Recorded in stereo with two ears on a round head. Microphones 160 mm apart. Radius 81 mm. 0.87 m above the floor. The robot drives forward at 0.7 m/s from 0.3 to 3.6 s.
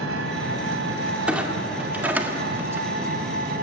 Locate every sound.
0.0 s an engine running: 85° right, 3 m; by 3.6 s 55° right (ahead or behind), 3.5 m
1.3 s a clunk: 5° right (ahead or behind), 2 m; by 3.5 s 25° right (ahead or behind), 0.7 m